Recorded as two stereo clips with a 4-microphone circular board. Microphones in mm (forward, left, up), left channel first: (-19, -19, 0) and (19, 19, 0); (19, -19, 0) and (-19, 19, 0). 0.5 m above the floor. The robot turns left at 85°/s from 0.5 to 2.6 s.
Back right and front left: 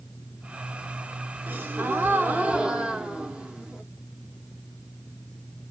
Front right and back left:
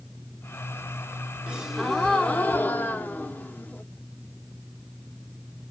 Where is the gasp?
75° left, 0.9 m; by 3.8 s 20° right, 0.9 m.